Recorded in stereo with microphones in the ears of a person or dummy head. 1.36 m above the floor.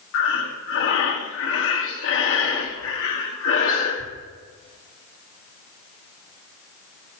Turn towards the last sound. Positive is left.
turn(degrees=70)  # may be behind; listen again after turning